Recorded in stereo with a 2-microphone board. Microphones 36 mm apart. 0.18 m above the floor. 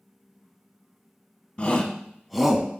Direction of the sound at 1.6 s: 30° left (ahead or behind).